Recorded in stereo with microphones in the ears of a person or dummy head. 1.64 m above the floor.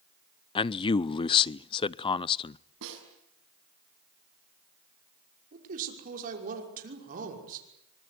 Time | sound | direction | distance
0.6 | a man speaking | 25° left (ahead or behind) | 0.5 m
2.8 | a snare drum | 75° right (ahead or behind) | 6.5 m
5.5 | a man speaking | 45° right (ahead or behind) | 6 m